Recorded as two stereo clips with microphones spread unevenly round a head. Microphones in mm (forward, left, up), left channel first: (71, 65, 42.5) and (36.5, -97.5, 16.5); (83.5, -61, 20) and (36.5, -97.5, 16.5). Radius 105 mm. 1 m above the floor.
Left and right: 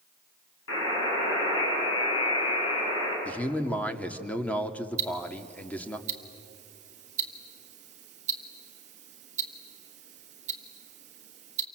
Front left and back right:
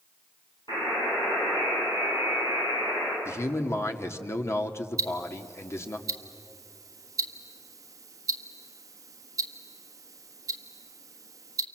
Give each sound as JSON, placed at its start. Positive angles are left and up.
{"t": 0.7, "sound": "a buzzer", "azimuth_deg": 105, "distance_m": 9.0}
{"t": 3.2, "sound": "a man speaking", "azimuth_deg": -5, "distance_m": 2.0}
{"t": 5.0, "sound": "ticking", "azimuth_deg": -145, "distance_m": 1.4}